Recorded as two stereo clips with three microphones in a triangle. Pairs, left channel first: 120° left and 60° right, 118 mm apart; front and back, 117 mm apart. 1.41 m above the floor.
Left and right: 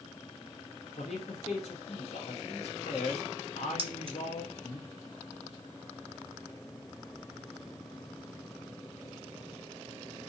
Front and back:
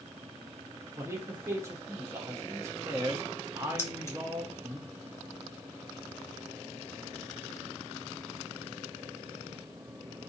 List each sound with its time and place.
1.0 s a man speaking: 115° left, 0.7 m
3.8 s keys jangling: 60° right, 0.5 m